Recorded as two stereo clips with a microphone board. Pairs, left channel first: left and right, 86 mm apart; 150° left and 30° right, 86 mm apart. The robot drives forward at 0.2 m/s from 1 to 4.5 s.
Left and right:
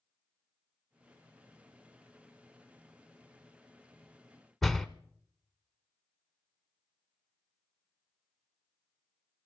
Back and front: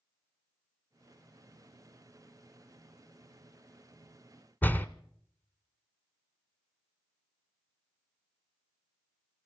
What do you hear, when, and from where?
4.6 s a door slam: 175° left, 0.8 m